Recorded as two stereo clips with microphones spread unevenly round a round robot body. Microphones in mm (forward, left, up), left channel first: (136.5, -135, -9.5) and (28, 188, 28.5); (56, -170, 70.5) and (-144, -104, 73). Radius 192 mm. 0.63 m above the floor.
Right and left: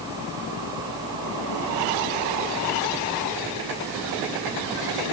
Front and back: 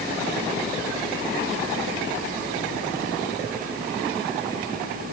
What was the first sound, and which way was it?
Only background noise.